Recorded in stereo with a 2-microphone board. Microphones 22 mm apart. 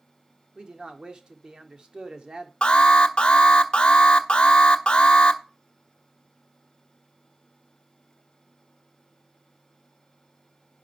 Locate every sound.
0.6 s a man speaking: 35° right (ahead or behind), 1.7 m
2.6 s an alarm: 50° left (ahead or behind), 1.2 m